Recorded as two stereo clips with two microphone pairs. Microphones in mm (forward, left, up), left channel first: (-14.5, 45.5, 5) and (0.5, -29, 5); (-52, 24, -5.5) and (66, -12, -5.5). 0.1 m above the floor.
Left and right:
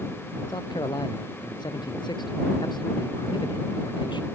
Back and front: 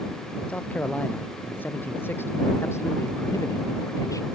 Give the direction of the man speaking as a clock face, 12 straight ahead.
9 o'clock.